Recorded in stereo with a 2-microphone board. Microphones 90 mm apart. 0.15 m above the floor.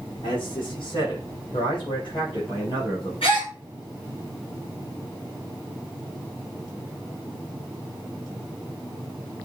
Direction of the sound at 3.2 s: 75° left (ahead or behind).